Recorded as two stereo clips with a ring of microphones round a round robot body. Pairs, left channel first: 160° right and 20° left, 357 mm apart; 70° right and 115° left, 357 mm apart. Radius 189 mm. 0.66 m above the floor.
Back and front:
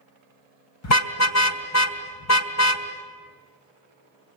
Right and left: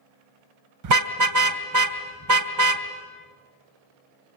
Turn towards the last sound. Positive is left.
turn(degrees=155)